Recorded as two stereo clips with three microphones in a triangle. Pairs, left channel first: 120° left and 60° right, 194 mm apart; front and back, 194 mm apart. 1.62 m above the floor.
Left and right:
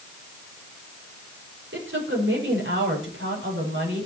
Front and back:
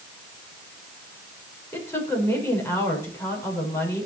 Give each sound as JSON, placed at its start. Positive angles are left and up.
{"t": 1.7, "sound": "a woman speaking", "azimuth_deg": -80, "distance_m": 6.0}